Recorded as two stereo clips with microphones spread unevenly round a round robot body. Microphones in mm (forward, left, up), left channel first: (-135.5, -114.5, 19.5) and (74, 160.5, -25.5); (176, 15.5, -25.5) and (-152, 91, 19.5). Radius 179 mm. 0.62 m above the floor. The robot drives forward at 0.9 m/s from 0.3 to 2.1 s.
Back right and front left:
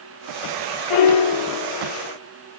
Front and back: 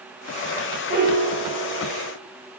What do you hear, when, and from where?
0.9 s a piano: 120° right, 0.8 m; by 2.1 s 155° right, 1.6 m